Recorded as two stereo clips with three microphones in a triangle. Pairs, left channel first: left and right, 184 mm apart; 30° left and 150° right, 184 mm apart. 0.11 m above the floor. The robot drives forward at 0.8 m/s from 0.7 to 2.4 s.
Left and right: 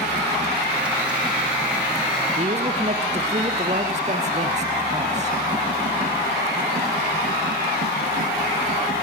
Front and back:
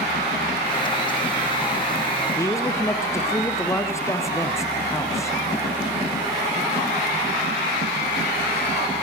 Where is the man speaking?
45° right, 4 m.